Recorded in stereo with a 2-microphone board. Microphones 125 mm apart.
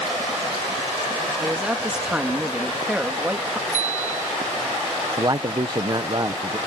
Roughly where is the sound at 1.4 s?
Centre.